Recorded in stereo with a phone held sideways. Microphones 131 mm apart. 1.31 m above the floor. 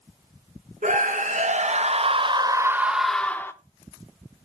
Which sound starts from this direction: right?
A scream, at 0.8 s.